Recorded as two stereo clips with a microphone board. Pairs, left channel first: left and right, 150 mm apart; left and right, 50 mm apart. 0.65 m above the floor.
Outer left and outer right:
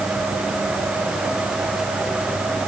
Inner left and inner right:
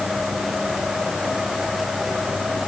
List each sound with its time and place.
Only background noise.